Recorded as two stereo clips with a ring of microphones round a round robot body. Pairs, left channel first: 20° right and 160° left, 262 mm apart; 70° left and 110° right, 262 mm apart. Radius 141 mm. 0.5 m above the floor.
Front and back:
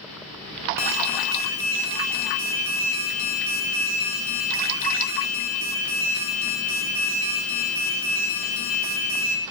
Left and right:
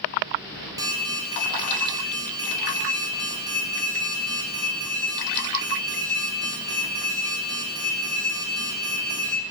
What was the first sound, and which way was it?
An alarm, 40° right.